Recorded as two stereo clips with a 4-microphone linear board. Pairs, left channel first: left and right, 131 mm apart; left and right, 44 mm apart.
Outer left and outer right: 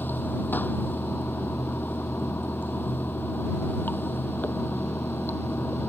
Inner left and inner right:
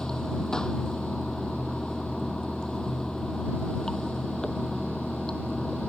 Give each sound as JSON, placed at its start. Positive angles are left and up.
{"t": 0.0, "sound": "running water", "side_deg": 15}